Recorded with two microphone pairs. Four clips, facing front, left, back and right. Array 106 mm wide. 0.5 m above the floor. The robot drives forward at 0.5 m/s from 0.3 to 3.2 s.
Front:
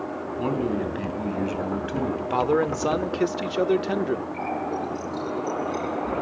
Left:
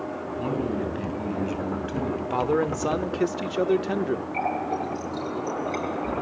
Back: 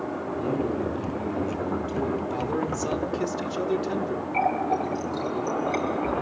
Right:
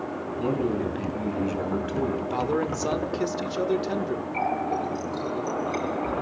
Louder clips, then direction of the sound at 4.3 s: Right 1 dB, back 4 dB; 170° left.